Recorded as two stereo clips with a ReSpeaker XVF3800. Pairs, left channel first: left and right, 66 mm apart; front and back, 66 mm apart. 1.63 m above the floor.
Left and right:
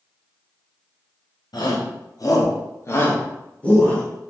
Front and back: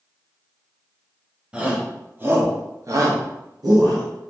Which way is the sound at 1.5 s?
105° left.